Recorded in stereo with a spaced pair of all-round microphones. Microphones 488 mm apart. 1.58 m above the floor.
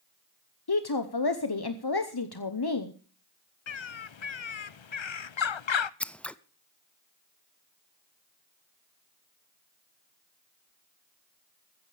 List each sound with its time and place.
0.7 s a woman speaking: 50° left (ahead or behind), 0.9 m
3.7 s a bird: 65° left (ahead or behind), 0.6 m
6.0 s scissors: centre (ahead or behind), 0.5 m